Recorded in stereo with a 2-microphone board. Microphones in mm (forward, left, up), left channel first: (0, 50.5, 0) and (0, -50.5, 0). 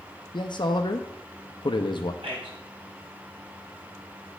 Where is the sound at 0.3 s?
55° left (ahead or behind), 0.5 m.